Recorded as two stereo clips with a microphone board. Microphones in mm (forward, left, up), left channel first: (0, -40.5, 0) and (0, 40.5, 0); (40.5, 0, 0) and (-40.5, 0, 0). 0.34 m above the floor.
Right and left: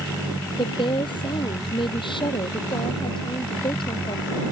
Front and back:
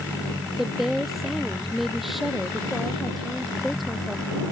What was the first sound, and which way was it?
A woman speaking, 95° right.